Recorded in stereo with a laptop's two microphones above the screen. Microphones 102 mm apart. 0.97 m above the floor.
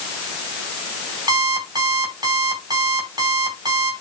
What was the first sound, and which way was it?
An alarm clock, 40° right (ahead or behind).